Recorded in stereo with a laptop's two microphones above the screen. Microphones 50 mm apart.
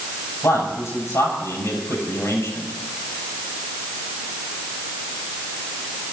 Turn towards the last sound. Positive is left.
turn(degrees=75)  # may be behind; listen again after turning